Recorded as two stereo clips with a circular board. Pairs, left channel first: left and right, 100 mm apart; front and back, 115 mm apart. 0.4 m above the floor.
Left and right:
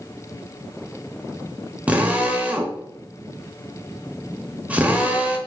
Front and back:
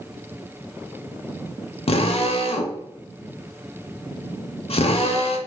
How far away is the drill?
About 0.6 m.